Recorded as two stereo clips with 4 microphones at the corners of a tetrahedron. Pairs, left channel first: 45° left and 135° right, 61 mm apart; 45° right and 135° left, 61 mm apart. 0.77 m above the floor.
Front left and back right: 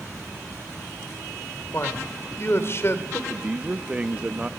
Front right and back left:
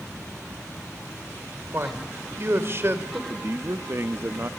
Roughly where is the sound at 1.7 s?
Left.